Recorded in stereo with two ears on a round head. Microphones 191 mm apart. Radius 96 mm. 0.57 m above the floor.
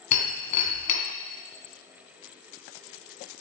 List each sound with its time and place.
0.1 s breaking glass: 35° left (ahead or behind), 2 m